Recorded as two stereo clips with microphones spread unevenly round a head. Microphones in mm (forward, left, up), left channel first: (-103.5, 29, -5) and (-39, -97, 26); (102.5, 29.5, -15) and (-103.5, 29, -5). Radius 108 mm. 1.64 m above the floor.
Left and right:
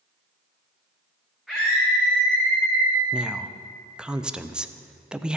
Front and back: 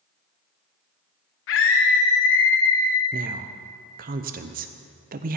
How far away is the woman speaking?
About 0.5 m.